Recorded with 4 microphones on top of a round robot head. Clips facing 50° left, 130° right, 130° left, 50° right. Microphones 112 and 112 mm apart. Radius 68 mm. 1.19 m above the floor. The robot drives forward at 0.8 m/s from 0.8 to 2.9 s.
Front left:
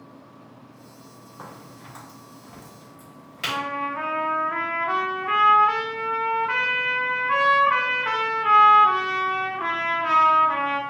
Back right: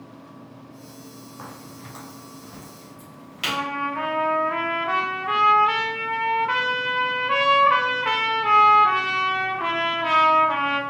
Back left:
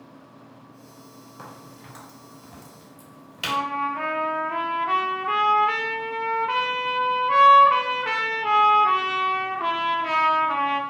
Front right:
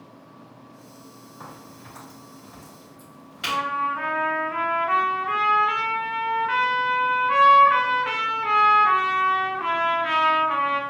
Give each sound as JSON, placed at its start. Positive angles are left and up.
{"t": 1.4, "sound": "a crack", "azimuth_deg": 135, "distance_m": 2.5}
{"t": 3.4, "sound": "a trumpet", "azimuth_deg": 170, "distance_m": 0.8}